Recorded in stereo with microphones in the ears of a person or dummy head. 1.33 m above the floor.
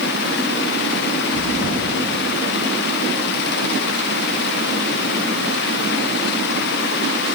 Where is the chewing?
20° left (ahead or behind), 1.1 m.